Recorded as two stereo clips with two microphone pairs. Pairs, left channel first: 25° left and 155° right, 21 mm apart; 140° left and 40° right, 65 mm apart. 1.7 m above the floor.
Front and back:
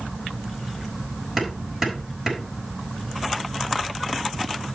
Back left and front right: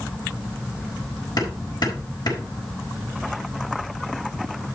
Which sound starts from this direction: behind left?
Hammering, at 1.4 s.